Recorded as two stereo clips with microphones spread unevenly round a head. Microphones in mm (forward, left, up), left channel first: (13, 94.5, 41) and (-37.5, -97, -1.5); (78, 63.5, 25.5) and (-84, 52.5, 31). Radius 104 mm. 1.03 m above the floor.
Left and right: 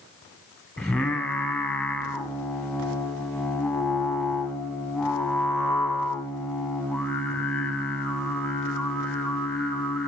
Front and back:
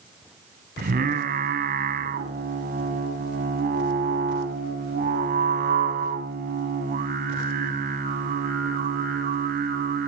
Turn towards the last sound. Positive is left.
turn(degrees=150)